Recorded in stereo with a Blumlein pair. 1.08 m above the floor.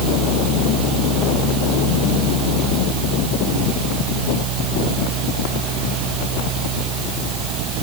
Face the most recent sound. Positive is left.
turn(degrees=-35)